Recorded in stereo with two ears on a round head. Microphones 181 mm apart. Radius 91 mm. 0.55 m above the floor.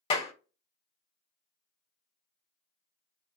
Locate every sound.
0.1 s a clap: 30° left (ahead or behind), 1.2 m